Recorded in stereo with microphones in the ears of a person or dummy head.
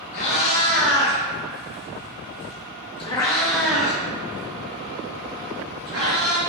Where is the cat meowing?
60° left (ahead or behind), 2.0 m; by 6.4 s 65° right (ahead or behind), 1.5 m.